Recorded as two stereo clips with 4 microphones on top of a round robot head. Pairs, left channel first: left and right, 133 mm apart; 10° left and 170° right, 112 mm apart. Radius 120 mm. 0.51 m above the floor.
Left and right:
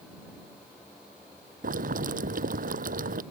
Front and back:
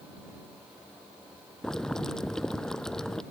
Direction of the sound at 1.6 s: 75° right.